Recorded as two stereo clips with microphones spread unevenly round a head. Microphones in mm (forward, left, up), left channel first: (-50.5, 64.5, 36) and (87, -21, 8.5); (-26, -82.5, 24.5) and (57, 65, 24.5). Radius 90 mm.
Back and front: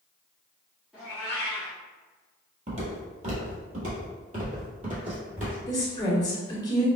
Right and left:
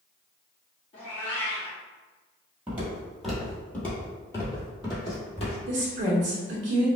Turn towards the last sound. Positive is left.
turn(degrees=85)